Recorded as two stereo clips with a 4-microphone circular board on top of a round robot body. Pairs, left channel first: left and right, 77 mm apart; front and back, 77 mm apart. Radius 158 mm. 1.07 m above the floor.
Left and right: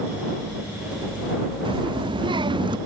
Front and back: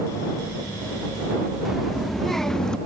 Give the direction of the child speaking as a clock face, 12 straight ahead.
3 o'clock.